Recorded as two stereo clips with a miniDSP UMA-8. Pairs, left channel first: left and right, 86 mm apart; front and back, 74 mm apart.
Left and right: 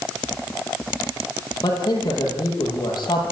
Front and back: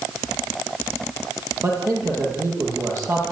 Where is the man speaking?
130° left, 8 m.